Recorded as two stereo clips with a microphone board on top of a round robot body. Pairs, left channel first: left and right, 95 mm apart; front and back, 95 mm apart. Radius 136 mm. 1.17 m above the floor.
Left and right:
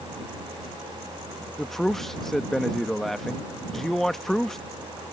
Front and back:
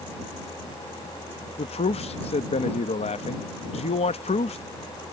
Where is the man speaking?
5° left.